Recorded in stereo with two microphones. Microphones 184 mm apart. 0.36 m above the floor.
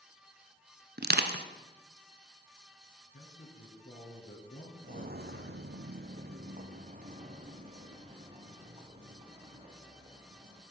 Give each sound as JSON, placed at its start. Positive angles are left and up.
{"t": 1.0, "sound": "crushing", "side_deg": -60, "distance_m": 0.9}
{"t": 3.1, "sound": "a man speaking", "side_deg": 65, "distance_m": 3.5}
{"t": 4.8, "sound": "footsteps", "side_deg": -45, "distance_m": 0.8}